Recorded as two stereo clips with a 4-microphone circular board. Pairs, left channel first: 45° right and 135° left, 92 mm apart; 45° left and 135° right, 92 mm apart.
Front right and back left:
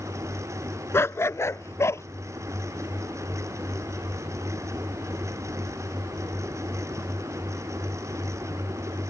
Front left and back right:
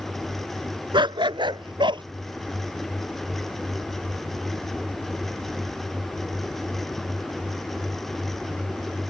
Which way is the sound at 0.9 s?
105° right.